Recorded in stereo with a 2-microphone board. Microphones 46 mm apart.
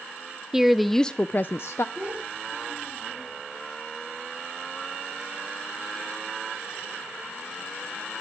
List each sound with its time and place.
0.5 s a woman speaking: 10° right (ahead or behind), 0.8 m; by 1.9 s 65° left (ahead or behind), 0.7 m
1.9 s a child speaking: 45° right (ahead or behind), 6 m